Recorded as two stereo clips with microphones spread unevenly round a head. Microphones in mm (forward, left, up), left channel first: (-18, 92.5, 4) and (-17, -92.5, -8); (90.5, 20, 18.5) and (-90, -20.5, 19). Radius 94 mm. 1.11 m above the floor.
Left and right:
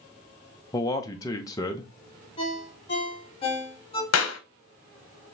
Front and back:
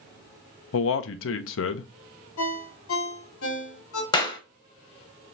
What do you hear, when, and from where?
0.7 s a man speaking: 15° left, 0.6 m
2.4 s a ringtone: 25° left, 1.3 m
4.1 s a clap: 80° left, 0.9 m